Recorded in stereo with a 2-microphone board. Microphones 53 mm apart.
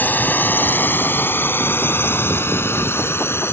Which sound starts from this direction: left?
A drone, at 0.0 s.